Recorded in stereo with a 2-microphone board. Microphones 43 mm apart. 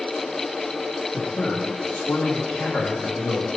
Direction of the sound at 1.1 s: 70° left (ahead or behind).